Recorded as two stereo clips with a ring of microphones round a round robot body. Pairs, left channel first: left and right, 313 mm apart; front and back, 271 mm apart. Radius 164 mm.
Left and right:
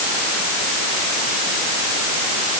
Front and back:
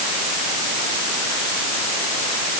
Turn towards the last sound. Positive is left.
No sound to turn to.